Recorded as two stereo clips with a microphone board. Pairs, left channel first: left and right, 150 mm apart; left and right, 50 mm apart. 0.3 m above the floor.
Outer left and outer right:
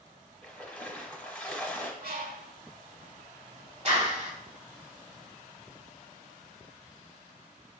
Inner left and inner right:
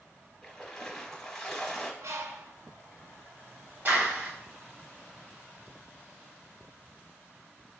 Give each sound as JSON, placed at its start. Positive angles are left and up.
{"t": 0.4, "sound": "a splash", "side_deg": 10, "distance_m": 0.9}
{"t": 2.0, "sound": "a bird", "side_deg": -90, "distance_m": 0.6}
{"t": 3.9, "sound": "a clap", "side_deg": -45, "distance_m": 1.1}